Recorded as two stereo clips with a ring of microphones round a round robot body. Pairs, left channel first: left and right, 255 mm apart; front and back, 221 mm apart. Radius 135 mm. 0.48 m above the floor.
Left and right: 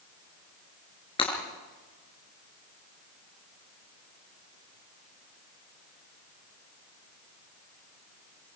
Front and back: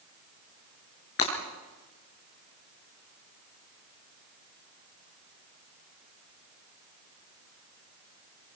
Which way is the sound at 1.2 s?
20° left.